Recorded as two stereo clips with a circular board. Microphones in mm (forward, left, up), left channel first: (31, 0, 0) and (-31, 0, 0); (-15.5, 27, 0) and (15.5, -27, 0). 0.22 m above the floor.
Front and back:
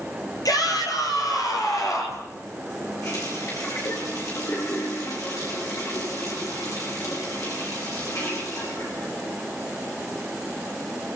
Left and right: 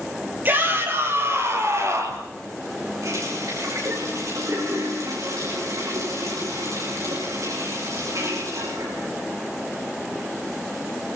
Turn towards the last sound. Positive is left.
turn(degrees=-25)